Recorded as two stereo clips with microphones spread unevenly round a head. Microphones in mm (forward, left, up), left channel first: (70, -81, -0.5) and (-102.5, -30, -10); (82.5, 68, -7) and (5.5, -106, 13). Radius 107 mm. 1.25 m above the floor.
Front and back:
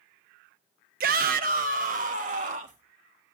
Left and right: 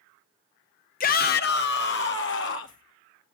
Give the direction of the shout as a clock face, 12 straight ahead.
8 o'clock.